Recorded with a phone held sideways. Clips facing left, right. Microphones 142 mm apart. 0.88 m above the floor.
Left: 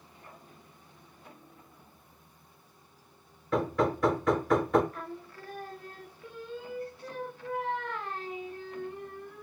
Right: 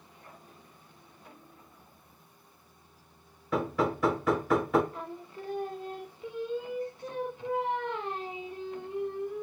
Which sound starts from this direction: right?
Singing, at 4.9 s.